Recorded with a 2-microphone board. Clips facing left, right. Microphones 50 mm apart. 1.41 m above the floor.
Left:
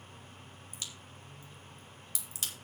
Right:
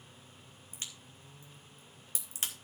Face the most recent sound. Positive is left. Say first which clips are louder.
# even
turn(degrees=-35)  # may be behind; listen again after turning